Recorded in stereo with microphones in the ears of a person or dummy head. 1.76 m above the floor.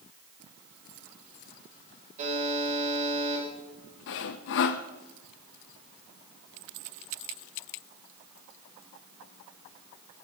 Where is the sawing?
60° left (ahead or behind), 0.5 m.